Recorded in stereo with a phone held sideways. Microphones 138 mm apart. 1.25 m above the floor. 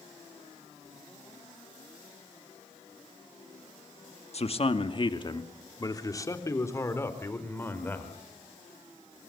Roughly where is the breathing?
I don't hear breathing.